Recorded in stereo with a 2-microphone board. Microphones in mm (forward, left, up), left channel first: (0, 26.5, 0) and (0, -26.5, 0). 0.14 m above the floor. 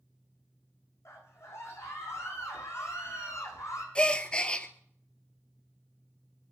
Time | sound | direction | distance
1.1 | a scream | 55° left (ahead or behind) | 7.5 m
4.0 | a gasp | 20° left (ahead or behind) | 1.0 m